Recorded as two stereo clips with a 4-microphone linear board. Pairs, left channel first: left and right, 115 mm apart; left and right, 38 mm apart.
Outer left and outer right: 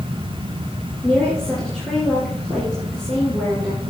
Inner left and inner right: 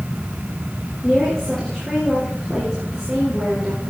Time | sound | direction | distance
1.0 | a woman speaking | 5° left (ahead or behind) | 3.5 m